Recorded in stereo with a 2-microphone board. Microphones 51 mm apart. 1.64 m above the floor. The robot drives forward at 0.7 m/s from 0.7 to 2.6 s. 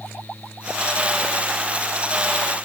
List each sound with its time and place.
Only background noise.